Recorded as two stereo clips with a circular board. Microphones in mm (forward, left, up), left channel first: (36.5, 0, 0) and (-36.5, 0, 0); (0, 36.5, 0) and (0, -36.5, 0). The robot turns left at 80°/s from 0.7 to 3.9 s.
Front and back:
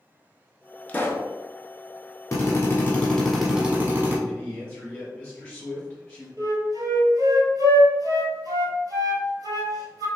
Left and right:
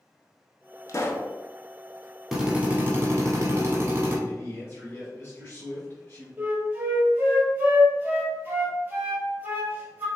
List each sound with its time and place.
0.9 s a pop: 65° left, 0.5 m; by 1.3 s 30° left, 0.5 m
2.3 s a drill: 10° right, 1.4 m; by 4.2 s 135° right, 1.4 m
4.3 s a man speaking: 65° left, 1.9 m
6.4 s a flute: 160° right, 1.1 m